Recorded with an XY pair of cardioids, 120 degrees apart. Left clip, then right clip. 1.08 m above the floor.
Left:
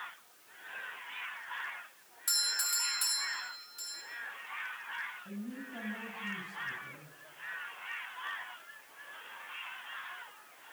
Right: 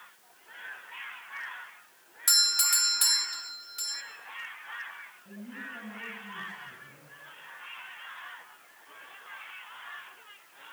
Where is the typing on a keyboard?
I don't hear typing on a keyboard.